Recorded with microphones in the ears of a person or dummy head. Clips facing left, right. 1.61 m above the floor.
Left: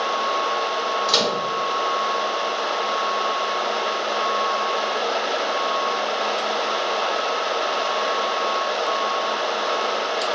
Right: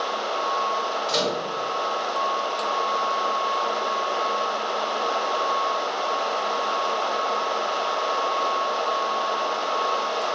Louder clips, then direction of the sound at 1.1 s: Left 1 dB; 50° left (ahead or behind).